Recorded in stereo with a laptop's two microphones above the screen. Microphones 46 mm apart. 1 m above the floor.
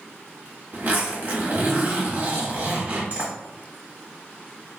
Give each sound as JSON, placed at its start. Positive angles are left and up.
{"t": 0.7, "sound": "a zipper", "side_deg": -40, "distance_m": 1.2}